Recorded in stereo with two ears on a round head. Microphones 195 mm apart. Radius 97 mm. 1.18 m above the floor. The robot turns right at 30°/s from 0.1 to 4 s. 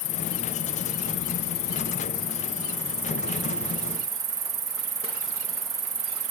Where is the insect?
80° left; by 6.3 s 160° right.